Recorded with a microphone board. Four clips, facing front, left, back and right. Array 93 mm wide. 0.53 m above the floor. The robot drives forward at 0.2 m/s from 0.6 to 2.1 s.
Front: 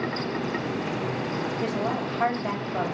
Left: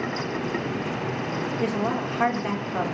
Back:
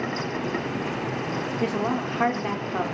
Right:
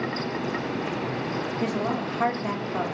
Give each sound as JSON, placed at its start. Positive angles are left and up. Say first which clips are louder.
{"t": 1.6, "sound": "a woman speaking", "louder": "left 2 dB, back 4 dB", "azimuth_deg": 140, "distance_m": 0.9}